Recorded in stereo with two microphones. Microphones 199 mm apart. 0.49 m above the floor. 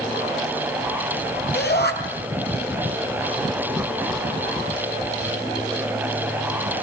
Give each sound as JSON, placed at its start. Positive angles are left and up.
{"t": 1.5, "sound": "a shout", "side_deg": 55, "distance_m": 4.0}